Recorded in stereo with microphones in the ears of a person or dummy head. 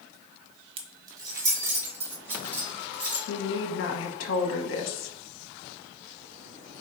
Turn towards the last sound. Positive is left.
turn(degrees=75)  # may be behind; listen again after turning